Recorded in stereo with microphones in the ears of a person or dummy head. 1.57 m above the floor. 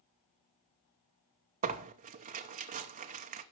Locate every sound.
1.6 s tearing paper: 25° right (ahead or behind), 0.7 m